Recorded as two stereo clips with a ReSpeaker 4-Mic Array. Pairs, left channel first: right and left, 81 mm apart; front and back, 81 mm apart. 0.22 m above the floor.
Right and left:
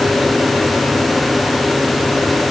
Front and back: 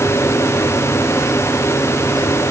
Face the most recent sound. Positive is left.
No sound to turn to.